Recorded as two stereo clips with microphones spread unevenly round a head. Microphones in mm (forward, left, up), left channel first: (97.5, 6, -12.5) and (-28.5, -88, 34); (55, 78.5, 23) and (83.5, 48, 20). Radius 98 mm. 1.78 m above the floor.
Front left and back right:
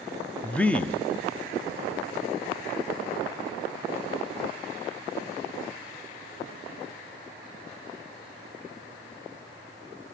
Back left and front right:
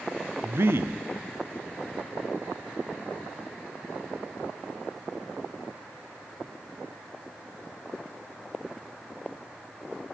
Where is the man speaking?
60° right, 0.8 m.